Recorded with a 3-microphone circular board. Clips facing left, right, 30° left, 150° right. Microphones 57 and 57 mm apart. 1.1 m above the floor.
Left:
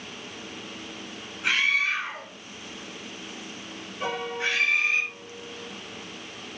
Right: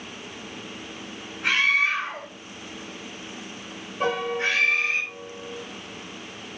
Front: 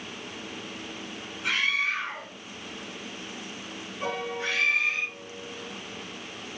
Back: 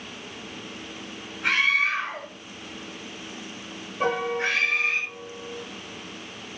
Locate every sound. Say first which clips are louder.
1.4 s a scream: right 3 dB, back 5 dB; 125° right, 5.5 m
4.0 s a piano: right 4 dB, back 6 dB; 130° right, 5.5 m